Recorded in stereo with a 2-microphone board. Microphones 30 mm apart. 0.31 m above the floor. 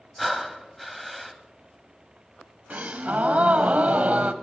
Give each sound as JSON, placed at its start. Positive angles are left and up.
{"t": 0.2, "sound": "breathing", "side_deg": 0, "distance_m": 1.2}
{"t": 2.7, "sound": "a gasp", "side_deg": -55, "distance_m": 0.9}